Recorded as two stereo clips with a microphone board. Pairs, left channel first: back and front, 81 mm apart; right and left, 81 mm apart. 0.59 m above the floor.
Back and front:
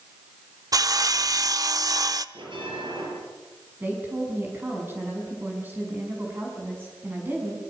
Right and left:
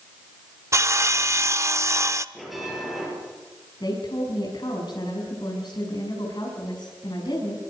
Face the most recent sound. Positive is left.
turn(degrees=-65)